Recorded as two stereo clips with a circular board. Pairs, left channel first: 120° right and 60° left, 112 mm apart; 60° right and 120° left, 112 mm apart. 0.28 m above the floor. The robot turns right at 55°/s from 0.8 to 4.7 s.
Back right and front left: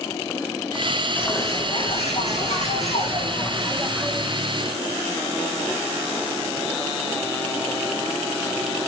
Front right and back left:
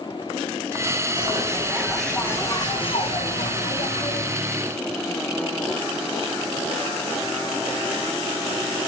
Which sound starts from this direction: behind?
A bird, at 1.1 s.